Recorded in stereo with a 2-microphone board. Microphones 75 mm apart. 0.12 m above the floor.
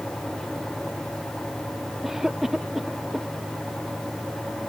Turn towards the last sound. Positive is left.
turn(degrees=-5)  # may be behind; listen again after turning